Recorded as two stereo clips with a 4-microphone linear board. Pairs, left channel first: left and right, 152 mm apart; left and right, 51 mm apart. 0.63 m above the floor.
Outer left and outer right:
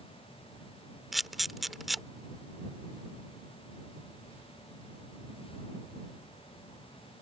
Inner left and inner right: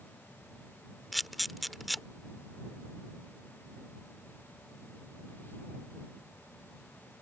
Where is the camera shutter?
Centre (ahead or behind).